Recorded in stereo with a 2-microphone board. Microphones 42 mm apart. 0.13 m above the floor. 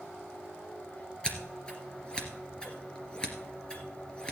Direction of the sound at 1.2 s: 20° left (ahead or behind).